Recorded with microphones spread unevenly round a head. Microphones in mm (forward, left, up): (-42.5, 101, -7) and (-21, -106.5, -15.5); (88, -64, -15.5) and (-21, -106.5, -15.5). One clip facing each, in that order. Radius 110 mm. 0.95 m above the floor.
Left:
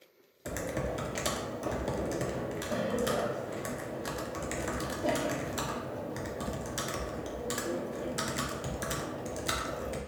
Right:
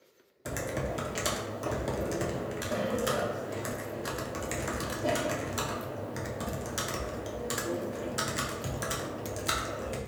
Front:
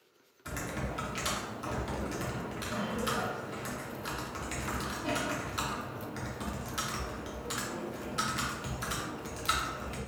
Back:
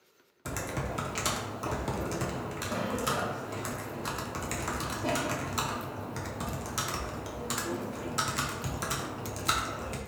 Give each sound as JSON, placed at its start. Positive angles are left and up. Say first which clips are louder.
{"t": 0.5, "sound": "typing on a keyboard", "louder": "even, back 2 dB", "azimuth_deg": -175, "distance_m": 0.5}